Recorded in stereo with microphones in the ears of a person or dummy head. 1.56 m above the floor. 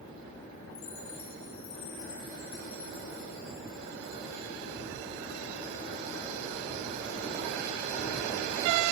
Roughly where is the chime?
Left.